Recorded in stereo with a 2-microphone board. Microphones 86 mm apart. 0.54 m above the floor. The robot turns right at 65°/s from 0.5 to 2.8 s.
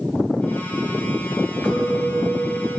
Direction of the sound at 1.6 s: 170° left.